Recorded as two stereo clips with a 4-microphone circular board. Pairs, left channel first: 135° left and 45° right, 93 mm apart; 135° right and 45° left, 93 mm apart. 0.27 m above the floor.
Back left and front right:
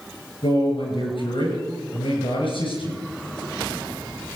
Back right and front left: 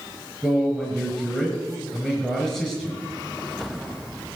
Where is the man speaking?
125° left, 5 m.